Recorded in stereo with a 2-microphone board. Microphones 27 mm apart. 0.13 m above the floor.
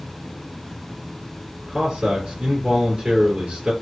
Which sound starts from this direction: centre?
A man speaking, at 1.7 s.